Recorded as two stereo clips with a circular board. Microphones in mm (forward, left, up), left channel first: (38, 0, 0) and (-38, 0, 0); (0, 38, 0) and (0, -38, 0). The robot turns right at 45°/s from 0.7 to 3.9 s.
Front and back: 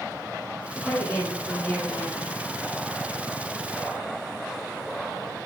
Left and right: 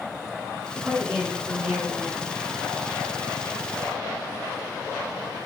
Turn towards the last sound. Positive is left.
turn(degrees=80)